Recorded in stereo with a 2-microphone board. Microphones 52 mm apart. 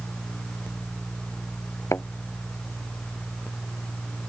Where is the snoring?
I don't hear snoring.